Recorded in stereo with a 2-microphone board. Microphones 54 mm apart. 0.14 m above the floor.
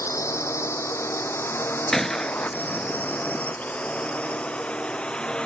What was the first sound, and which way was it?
A drone, 60° left (ahead or behind).